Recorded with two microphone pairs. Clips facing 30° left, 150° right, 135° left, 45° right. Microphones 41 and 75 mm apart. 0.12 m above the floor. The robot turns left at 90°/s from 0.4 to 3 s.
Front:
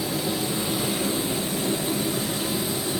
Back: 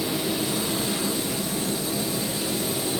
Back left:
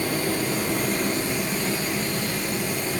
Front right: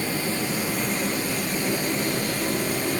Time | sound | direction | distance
0.0 | running water | 145° left | 2.5 m